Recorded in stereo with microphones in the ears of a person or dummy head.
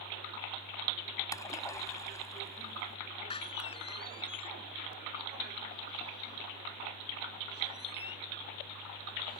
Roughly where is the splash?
Centre.